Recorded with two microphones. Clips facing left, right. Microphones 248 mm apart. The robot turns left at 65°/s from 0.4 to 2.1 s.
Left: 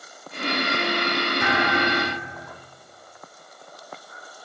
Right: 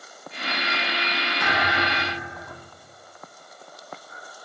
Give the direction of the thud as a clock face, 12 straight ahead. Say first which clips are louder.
Left 3 dB; 8 o'clock.